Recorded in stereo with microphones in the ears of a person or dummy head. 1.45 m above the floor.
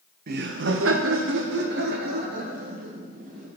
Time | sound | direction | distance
0.3 | laughter | 50° right (ahead or behind) | 0.6 m